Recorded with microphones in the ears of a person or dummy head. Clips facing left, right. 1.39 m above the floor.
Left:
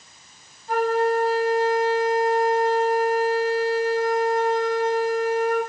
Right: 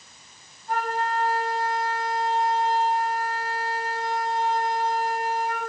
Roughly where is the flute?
Left.